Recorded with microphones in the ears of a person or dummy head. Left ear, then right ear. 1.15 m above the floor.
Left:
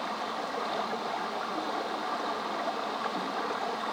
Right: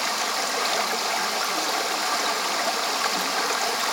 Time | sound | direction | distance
0.0 | running water | 65° right (ahead or behind) | 0.7 m